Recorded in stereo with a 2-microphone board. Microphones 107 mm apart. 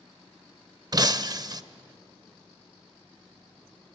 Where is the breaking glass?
40° right (ahead or behind), 0.6 m.